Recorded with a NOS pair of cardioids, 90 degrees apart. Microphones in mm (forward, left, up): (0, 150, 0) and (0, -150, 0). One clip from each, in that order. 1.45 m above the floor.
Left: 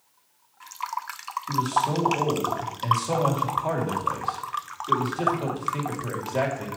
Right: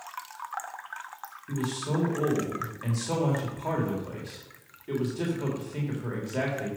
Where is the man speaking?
20° left, 3 m.